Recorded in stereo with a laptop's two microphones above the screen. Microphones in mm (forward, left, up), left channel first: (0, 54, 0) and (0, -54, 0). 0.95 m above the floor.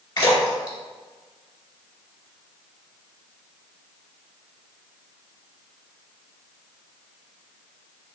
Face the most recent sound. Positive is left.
turn(degrees=40)  # may be behind; listen again after turning